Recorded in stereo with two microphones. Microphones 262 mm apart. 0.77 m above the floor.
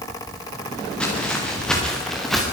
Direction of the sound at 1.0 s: 5° left (ahead or behind).